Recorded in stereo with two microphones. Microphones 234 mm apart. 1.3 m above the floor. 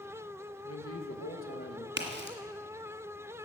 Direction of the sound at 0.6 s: 80° left.